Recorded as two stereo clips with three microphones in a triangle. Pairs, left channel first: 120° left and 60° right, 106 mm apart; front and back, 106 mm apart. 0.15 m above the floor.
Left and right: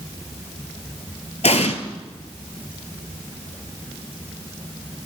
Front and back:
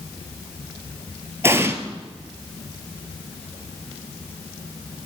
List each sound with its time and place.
1.4 s an explosion: 115° left, 0.7 m